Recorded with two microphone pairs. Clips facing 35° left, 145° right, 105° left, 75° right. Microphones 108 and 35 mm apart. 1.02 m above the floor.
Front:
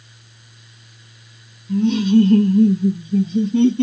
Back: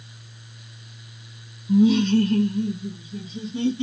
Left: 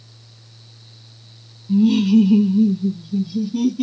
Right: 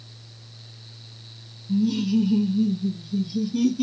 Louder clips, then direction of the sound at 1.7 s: Front 2 dB, left 8 dB; 140° left.